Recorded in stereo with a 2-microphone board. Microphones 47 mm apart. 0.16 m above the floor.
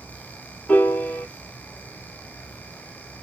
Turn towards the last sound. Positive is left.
turn(degrees=40)  # may be behind; listen again after turning